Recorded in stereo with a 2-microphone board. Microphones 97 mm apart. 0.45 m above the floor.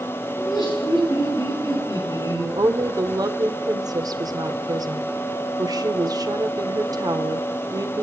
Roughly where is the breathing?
No breathing in this recording.